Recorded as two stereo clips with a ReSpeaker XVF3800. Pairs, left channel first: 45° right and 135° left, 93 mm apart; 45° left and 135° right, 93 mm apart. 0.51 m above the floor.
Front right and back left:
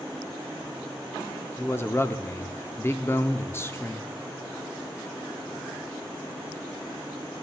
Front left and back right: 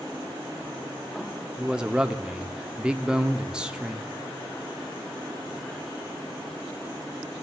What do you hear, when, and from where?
1.6 s a man speaking: 65° right, 0.8 m